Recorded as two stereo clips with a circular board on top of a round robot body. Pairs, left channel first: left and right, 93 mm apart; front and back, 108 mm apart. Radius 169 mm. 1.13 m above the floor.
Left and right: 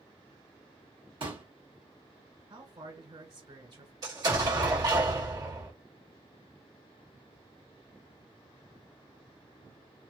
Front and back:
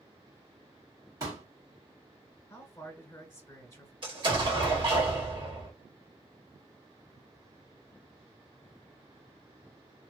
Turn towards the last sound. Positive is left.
turn(degrees=-140)